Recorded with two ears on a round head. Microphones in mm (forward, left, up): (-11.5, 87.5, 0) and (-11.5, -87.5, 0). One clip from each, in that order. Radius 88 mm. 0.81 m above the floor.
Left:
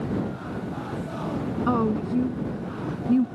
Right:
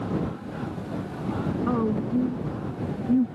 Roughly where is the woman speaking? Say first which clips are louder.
Left 3 dB; left.